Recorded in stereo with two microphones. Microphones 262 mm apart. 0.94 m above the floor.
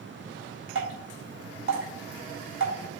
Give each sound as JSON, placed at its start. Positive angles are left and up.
{"t": 0.8, "sound": "dripping", "side_deg": -50, "distance_m": 4.0}